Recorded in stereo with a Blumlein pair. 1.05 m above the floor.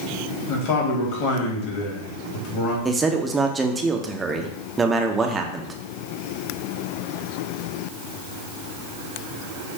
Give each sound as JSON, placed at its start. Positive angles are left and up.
{"t": 0.5, "sound": "a man speaking", "azimuth_deg": 45, "distance_m": 1.8}
{"t": 2.9, "sound": "a man speaking", "azimuth_deg": -15, "distance_m": 0.6}